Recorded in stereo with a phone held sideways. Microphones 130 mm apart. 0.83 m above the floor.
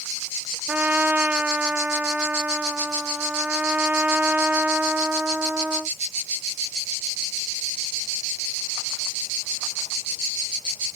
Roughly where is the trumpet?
Centre.